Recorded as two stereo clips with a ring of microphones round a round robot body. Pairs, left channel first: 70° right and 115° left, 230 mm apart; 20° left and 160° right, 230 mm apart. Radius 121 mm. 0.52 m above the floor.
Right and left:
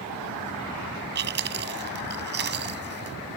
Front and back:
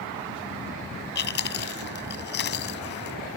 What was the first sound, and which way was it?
Chewing, 70° left.